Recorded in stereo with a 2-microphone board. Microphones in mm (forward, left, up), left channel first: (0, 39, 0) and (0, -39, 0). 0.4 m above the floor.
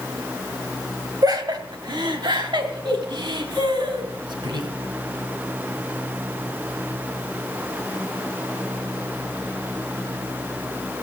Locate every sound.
1.2 s laughter: 50° right (ahead or behind), 1.7 m; by 4.7 s 70° right (ahead or behind), 4 m